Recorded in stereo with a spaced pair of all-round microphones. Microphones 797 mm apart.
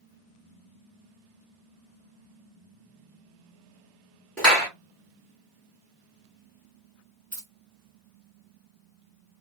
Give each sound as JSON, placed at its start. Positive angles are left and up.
{"t": 4.4, "sound": "a clap", "side_deg": 0, "distance_m": 2.5}
{"t": 7.3, "sound": "keys jangling", "side_deg": -20, "distance_m": 0.8}